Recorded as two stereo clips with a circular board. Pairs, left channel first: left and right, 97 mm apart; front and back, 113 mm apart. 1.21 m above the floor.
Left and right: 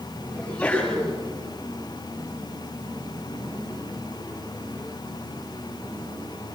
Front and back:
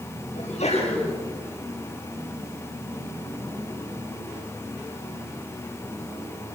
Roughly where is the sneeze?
Ahead.